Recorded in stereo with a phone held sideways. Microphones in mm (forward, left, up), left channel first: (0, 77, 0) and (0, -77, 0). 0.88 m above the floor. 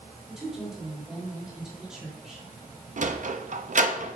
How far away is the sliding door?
About 0.6 m.